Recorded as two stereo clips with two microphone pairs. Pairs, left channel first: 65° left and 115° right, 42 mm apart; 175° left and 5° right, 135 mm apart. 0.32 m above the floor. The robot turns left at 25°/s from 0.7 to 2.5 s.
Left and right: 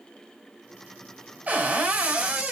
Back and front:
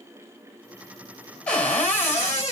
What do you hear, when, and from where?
1.5 s a cupboard door: 110° right, 1.5 m; by 2.5 s 140° right, 1.5 m